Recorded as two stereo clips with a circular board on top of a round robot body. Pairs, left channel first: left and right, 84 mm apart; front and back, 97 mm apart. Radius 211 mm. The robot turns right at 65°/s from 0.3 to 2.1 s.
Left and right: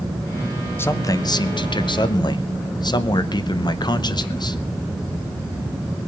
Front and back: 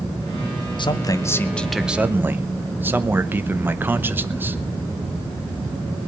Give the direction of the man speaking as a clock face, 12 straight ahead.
11 o'clock.